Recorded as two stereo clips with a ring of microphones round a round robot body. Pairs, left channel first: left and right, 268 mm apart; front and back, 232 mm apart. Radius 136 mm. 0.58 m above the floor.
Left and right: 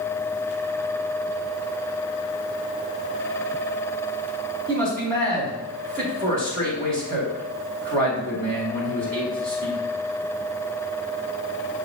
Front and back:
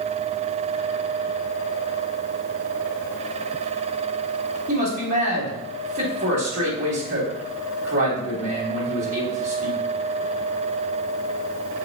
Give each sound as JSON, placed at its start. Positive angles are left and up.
{"t": 4.7, "sound": "a man speaking", "azimuth_deg": -145, "distance_m": 2.5}